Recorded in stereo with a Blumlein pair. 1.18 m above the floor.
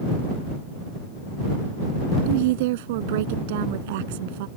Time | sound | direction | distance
2.3 | a woman speaking | 50° right | ?